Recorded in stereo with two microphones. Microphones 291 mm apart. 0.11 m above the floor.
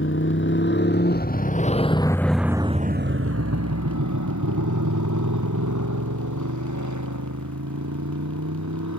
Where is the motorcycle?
45° left (ahead or behind); by 9.0 s 70° right (ahead or behind).